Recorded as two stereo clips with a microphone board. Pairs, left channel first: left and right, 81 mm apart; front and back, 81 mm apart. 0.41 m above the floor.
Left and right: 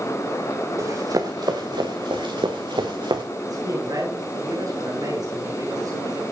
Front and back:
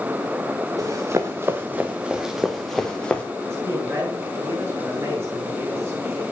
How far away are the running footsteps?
About 2.5 m.